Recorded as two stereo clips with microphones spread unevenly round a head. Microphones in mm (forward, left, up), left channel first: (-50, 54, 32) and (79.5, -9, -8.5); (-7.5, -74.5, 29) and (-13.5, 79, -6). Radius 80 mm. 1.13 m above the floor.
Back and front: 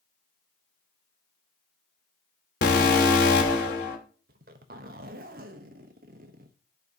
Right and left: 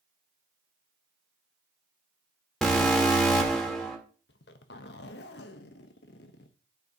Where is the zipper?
65° right, 0.7 m.